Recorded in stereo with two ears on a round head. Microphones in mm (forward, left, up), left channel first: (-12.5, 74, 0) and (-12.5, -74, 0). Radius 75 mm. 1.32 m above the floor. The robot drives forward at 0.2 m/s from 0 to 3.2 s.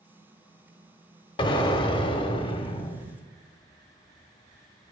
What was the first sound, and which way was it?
An explosion, 30° left (ahead or behind).